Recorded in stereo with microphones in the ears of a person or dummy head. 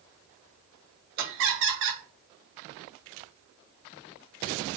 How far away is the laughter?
About 0.8 m.